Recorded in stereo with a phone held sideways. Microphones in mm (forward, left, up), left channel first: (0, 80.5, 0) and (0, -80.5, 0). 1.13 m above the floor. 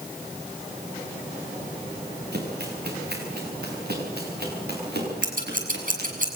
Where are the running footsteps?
75° right (ahead or behind), 7 m; by 6.1 s 85° right, 9.5 m.